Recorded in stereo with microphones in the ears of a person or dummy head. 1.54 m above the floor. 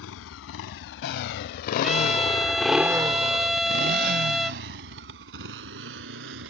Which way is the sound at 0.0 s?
80° left.